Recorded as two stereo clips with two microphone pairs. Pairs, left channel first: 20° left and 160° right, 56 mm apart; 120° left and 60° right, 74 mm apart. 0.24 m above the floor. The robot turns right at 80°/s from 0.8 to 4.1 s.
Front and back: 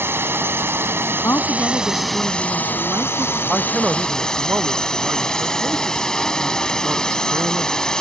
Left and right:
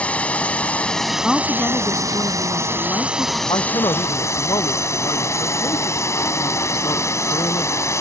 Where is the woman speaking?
30° left; by 3.4 s 160° right.